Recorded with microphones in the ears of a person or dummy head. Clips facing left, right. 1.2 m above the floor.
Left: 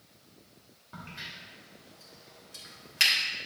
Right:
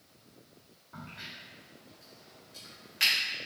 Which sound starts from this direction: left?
A crack, at 0.9 s.